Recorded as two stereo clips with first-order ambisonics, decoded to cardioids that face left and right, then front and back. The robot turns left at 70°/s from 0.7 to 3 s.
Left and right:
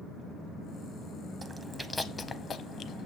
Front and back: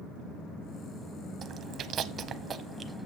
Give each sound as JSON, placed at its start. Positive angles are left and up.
{"t": 1.4, "sound": "chewing", "azimuth_deg": -155, "distance_m": 0.6}